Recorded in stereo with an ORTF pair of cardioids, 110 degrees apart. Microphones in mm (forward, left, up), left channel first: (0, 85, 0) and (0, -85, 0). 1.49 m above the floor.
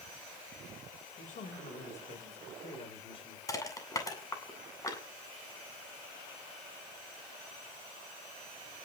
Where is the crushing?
20° left, 8.5 m.